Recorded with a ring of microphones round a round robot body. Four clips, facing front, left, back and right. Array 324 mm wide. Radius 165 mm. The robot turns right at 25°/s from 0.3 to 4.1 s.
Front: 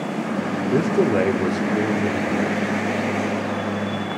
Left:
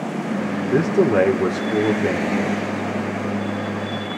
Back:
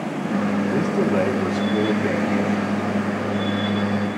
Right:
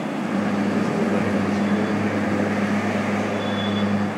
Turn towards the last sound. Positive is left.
turn(degrees=145)